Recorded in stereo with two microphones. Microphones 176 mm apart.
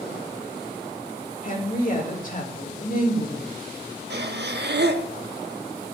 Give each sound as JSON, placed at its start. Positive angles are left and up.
{"t": 1.4, "sound": "a woman speaking", "side_deg": 50, "distance_m": 1.9}
{"t": 4.1, "sound": "breathing", "side_deg": -75, "distance_m": 0.7}